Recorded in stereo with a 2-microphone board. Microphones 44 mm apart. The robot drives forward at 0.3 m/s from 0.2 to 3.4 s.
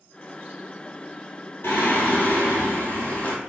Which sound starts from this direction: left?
Singing, at 1.6 s.